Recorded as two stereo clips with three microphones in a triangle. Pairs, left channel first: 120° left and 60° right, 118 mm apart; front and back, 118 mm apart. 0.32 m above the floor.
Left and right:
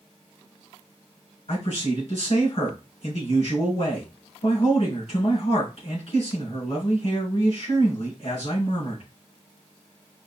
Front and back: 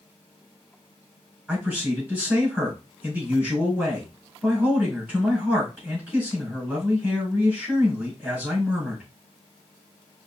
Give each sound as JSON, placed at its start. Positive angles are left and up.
{"t": 1.5, "sound": "a man speaking", "azimuth_deg": 100, "distance_m": 3.5}